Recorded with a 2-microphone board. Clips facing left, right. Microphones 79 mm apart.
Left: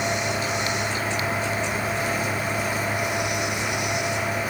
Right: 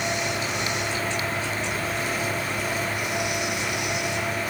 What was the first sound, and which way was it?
Only background noise.